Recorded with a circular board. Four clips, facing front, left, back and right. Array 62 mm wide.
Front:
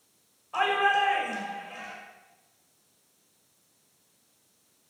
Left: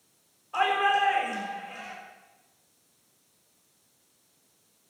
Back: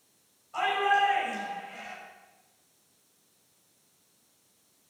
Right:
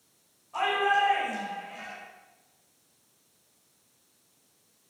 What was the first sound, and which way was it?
A shout, 25° left.